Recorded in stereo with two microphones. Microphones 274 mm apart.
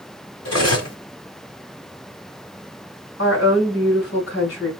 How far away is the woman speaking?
About 1.7 m.